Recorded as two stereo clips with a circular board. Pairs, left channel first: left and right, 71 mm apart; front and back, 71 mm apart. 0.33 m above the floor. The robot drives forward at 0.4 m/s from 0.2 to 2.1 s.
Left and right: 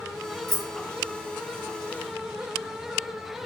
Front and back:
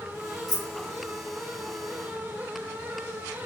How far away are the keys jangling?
About 1.3 m.